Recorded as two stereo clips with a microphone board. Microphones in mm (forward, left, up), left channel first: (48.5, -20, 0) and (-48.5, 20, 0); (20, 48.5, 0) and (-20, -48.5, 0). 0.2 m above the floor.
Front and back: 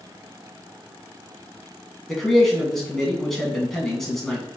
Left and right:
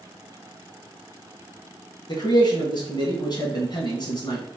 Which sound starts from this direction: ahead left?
A man speaking, at 2.1 s.